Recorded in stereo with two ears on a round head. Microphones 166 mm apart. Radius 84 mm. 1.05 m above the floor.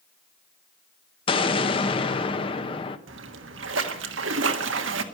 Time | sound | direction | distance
1.3 | an explosion | 25° left (ahead or behind) | 0.9 m
3.1 | a splash | 70° right (ahead or behind) | 1.4 m